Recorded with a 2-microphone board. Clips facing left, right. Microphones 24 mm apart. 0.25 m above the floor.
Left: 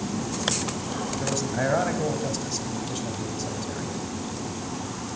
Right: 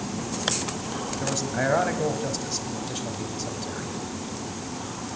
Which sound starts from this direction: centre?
A man speaking, at 1.2 s.